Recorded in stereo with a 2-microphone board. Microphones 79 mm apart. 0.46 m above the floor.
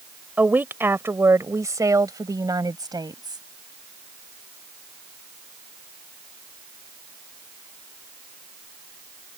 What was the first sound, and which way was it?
A woman speaking, 20° right (ahead or behind).